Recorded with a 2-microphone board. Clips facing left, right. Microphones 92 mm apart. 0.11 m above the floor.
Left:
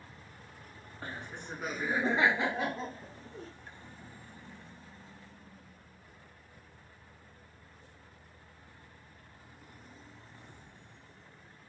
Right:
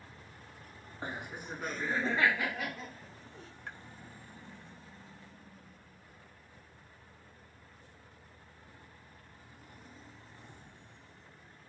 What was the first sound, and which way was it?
Laughter, 20° right (ahead or behind).